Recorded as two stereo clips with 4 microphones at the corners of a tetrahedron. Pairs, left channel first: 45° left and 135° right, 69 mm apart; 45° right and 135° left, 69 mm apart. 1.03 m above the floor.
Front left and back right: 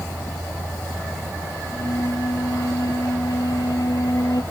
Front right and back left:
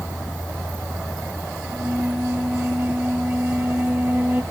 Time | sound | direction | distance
1.6 | a flute | 70° left | ?